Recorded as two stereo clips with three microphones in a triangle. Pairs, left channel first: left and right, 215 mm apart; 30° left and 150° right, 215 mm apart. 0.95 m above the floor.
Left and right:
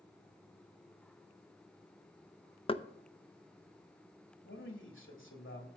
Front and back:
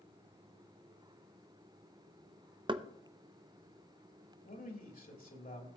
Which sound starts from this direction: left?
A man speaking, at 4.5 s.